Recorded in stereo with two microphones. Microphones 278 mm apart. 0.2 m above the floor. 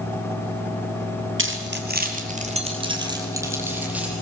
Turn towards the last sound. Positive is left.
turn(degrees=-5)  # may be behind; listen again after turning